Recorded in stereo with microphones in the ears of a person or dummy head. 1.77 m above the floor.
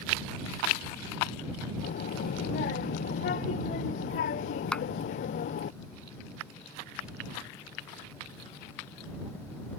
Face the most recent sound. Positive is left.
turn(degrees=5)  # may be behind; listen again after turning